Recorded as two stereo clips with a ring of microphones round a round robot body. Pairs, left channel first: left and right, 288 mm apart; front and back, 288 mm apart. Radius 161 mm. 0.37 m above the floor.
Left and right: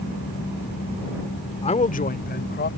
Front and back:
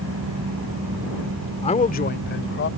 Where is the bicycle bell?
No bicycle bell in this recording.